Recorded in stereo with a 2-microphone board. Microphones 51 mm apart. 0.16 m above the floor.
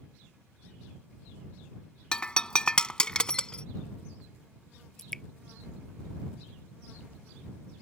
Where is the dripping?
10° left (ahead or behind).